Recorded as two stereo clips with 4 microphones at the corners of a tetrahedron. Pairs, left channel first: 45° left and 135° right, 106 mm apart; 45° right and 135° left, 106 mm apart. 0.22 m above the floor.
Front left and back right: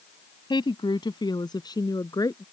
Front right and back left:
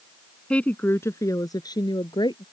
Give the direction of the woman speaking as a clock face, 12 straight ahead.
11 o'clock.